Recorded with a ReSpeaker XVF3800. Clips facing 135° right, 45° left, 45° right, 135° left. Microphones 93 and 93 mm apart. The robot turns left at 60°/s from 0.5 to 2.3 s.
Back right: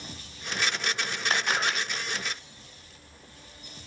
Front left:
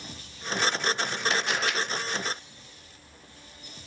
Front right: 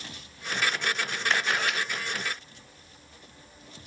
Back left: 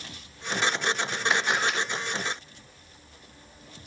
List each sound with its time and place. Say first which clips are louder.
1.3 s a camera shutter: back right 3 dB, back left 1 dB; 150° right, 1.8 m; by 1.8 s straight behind, 1.8 m